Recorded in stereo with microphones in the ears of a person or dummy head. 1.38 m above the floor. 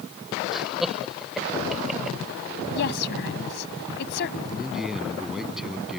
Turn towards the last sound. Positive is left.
turn(degrees=-5)  # may be behind; listen again after turning